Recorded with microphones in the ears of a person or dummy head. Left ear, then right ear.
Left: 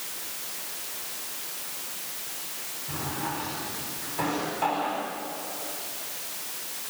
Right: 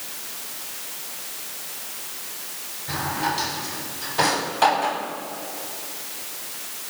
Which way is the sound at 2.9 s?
80° right.